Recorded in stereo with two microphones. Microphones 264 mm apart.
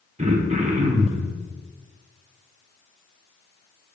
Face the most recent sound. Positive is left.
turn(degrees=-25)  # may be behind; listen again after turning